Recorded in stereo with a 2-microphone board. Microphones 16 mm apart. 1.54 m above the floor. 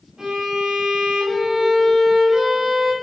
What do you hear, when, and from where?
0.2 s a violin: 55° right (ahead or behind), 3 m